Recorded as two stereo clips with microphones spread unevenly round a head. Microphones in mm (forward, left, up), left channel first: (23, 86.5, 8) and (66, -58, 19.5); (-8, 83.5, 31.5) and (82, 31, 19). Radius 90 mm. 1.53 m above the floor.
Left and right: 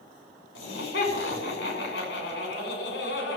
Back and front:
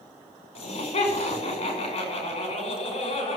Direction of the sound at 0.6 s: 125° left.